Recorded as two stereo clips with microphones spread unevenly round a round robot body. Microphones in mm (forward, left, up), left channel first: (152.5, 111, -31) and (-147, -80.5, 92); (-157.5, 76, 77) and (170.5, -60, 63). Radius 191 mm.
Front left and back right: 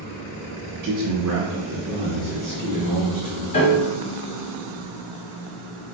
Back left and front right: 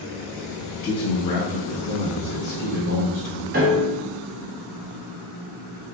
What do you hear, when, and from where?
0.8 s a man speaking: straight behind, 0.5 m; by 3.4 s 125° left, 1.6 m
3.5 s a piano: 20° left, 1.0 m